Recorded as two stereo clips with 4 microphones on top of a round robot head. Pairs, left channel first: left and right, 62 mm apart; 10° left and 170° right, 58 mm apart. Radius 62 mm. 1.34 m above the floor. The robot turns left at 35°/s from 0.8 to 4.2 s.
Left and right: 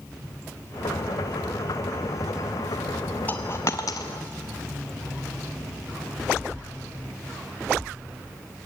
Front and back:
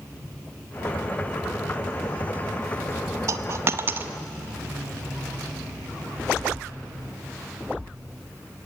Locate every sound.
3.3 s a dropped coin: 165° left, 0.8 m; by 4.1 s 135° left, 0.8 m